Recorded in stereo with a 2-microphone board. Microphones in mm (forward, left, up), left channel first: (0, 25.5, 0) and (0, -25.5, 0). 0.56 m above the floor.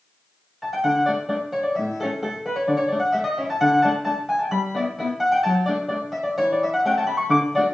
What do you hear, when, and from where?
0.6 s a piano: 5° right (ahead or behind), 1.1 m